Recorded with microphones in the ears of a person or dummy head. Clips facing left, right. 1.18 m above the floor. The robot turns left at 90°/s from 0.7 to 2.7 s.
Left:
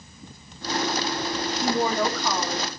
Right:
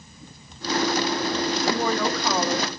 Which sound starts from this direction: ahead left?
A woman speaking, at 1.6 s.